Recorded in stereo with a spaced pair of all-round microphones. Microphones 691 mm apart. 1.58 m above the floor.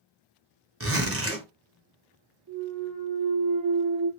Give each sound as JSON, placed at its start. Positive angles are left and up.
{"t": 0.8, "sound": "a zipper", "side_deg": -20, "distance_m": 0.6}
{"t": 2.5, "sound": "a clunk", "side_deg": -25, "distance_m": 1.3}